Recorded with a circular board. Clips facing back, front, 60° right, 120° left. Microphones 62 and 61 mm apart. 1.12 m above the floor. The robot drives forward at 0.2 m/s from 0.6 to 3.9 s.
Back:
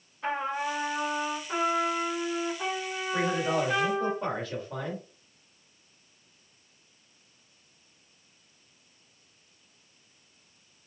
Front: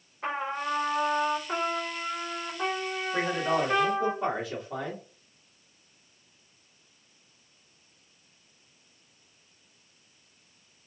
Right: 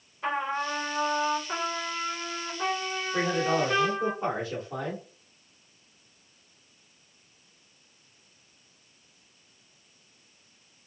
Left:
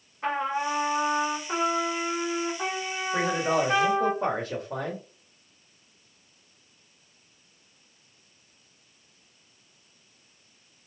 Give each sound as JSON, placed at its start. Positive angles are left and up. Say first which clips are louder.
{"t": 0.2, "sound": "a trumpet", "louder": "back 1 dB, left 2 dB", "azimuth_deg": 55, "distance_m": 2.5}
{"t": 3.1, "sound": "a man speaking", "louder": "even, left 1 dB", "azimuth_deg": 75, "distance_m": 1.5}